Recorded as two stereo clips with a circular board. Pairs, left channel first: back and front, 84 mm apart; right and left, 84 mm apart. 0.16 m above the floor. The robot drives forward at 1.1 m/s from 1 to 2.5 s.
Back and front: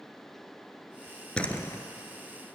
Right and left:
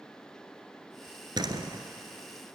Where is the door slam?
105° left, 1.4 m; by 1.8 s 125° left, 1.6 m.